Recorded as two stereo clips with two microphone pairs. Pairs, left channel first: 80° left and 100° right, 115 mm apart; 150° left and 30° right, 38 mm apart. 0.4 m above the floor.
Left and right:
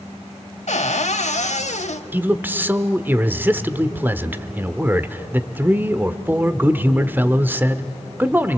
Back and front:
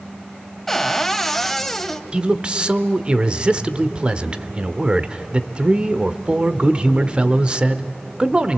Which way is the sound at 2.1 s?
50° right.